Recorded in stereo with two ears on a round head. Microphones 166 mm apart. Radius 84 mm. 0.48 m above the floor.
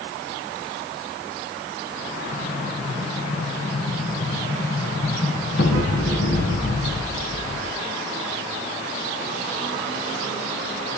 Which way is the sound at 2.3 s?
65° left (ahead or behind).